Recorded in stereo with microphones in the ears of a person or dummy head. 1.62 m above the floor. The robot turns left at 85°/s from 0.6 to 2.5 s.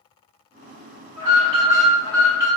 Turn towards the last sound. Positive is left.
turn(degrees=130)